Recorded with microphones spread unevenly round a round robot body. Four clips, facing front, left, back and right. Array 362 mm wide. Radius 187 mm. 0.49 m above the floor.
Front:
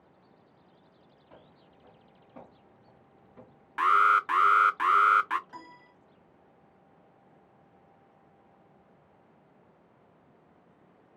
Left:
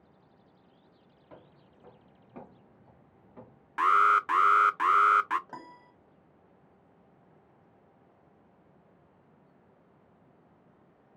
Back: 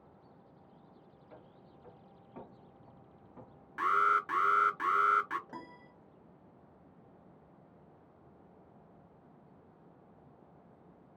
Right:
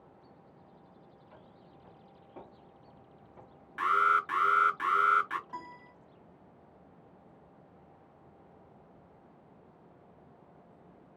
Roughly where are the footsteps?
Left.